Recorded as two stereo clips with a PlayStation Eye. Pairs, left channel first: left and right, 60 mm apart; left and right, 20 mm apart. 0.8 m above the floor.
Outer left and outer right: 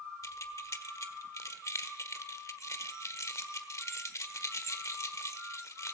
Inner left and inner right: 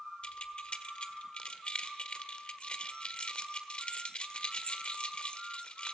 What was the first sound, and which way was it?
Keys jangling, 55° left (ahead or behind).